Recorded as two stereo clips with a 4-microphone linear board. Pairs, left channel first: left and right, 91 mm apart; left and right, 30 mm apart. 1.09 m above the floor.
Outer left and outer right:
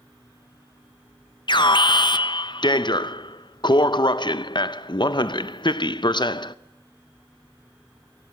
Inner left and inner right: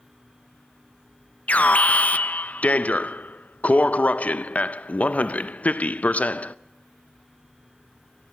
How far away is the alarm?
About 0.5 m.